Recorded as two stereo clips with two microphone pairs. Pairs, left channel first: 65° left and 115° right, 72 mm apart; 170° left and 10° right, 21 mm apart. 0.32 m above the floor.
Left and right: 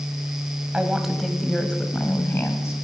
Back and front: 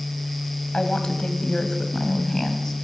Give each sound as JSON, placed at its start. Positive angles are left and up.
{"t": 0.7, "sound": "a woman speaking", "azimuth_deg": 170, "distance_m": 2.0}